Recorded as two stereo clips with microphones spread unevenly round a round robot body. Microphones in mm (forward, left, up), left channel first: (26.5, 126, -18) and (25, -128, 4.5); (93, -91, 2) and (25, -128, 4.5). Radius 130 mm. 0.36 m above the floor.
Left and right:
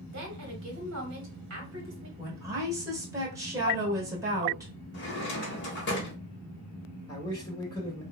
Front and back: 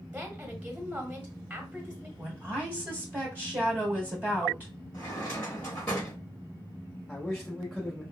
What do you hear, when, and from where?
0.1 s a woman speaking: 80° right, 1.2 m
2.2 s a woman speaking: 165° right, 1.3 m
4.9 s a drawer: 100° left, 0.8 m
7.1 s a man speaking: 115° left, 0.9 m